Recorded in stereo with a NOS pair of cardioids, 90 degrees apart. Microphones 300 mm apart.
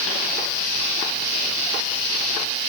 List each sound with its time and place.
Only background noise.